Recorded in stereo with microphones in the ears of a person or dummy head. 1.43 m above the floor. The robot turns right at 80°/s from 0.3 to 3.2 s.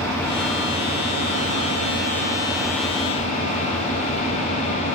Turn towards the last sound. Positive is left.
turn(degrees=40)